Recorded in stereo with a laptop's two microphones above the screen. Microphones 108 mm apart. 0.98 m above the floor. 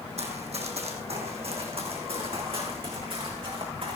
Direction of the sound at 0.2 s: 70° right (ahead or behind).